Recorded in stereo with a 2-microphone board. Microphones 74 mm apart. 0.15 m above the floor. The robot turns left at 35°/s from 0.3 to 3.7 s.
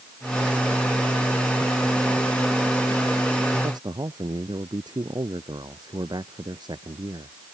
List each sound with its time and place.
3.6 s a man speaking: 75° right (ahead or behind); by 7.4 s 70° right (ahead or behind)